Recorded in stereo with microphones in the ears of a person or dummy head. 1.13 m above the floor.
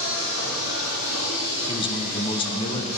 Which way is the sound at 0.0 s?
75° left (ahead or behind).